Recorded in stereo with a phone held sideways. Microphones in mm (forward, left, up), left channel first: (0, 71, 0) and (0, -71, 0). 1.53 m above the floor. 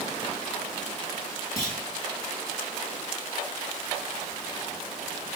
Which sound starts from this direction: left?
A clunk, at 1.6 s.